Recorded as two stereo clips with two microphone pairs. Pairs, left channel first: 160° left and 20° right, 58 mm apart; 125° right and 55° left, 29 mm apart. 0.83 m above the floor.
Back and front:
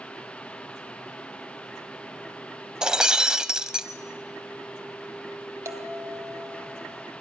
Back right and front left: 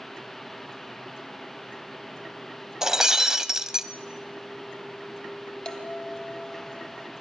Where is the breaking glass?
30° left, 0.7 m.